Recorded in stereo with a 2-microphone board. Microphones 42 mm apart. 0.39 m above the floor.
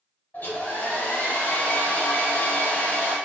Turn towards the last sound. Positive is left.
turn(degrees=50)  # may be behind; listen again after turning